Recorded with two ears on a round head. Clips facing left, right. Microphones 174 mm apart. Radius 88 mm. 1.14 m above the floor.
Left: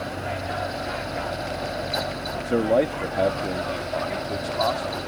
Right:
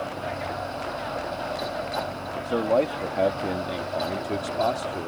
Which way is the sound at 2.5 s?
25° left (ahead or behind).